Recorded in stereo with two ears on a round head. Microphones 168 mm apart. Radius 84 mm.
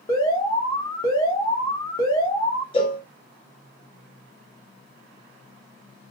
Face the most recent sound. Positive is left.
turn(degrees=30)  # may be behind; listen again after turning